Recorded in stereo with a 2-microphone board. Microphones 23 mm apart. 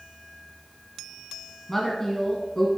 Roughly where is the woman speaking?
Centre.